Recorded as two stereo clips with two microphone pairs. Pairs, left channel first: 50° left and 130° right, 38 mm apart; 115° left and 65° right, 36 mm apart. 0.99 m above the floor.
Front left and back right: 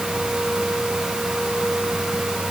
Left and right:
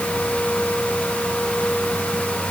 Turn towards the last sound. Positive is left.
No sound to turn to.